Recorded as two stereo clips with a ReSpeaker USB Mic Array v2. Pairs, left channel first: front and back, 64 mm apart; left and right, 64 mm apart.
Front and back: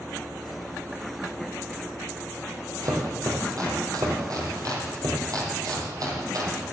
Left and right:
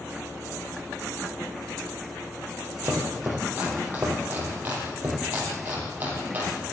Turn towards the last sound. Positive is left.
turn(degrees=-150)